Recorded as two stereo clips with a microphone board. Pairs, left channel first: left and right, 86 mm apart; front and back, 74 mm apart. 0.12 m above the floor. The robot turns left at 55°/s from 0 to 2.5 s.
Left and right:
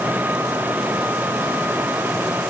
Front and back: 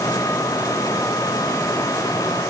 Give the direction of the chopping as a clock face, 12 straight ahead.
I don't hear chopping.